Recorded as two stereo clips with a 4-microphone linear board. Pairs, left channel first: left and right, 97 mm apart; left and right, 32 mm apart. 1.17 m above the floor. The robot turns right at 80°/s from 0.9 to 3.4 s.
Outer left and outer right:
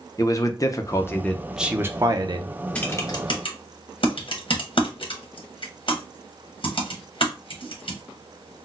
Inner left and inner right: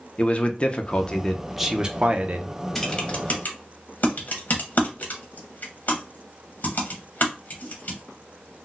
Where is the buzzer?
No buzzer in this recording.